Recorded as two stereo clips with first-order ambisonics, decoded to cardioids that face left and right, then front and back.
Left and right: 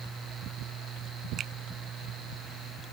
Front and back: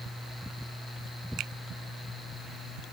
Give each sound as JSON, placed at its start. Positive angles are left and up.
{"t": 1.4, "sound": "a finger snap", "azimuth_deg": -145}